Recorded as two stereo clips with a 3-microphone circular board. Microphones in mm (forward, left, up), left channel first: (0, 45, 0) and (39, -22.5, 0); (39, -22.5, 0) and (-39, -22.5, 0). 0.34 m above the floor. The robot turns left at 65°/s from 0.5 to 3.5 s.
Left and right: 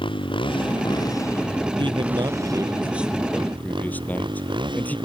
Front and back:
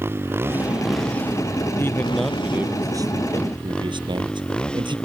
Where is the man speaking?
60° right; by 5.0 s 170° right.